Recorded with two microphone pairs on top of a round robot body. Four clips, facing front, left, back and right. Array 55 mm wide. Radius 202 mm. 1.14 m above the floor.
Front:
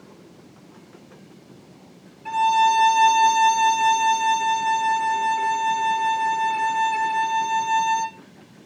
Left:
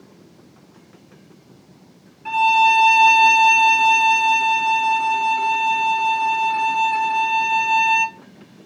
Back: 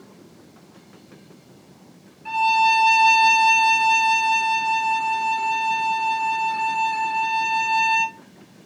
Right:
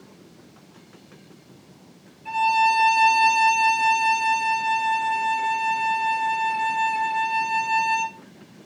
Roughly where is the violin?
Left.